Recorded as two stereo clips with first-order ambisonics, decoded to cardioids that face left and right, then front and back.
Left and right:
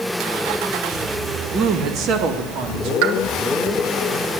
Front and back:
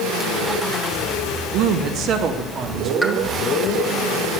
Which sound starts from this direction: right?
A pop, at 3.0 s.